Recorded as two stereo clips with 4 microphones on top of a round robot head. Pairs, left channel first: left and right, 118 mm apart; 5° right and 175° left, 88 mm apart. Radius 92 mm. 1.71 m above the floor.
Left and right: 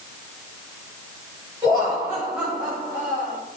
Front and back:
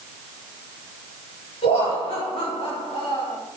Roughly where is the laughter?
Ahead.